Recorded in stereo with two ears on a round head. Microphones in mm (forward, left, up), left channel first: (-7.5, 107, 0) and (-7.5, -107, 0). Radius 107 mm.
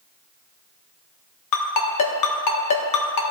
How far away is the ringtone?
About 1.2 m.